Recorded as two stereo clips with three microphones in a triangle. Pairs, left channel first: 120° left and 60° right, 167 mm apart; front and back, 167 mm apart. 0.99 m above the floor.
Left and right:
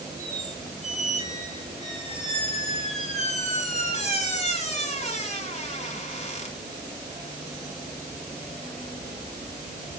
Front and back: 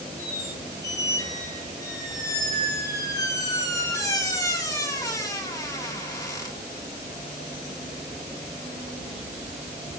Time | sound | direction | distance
0.2 | a squeak | 70° left | 9.5 m